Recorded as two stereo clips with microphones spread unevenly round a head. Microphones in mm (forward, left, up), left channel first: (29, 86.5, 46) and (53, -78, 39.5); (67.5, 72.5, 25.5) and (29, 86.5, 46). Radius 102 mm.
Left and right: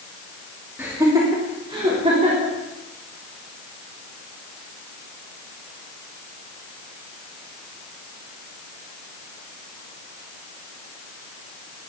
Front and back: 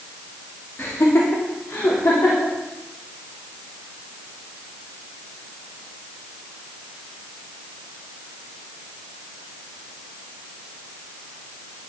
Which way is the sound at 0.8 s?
5° right.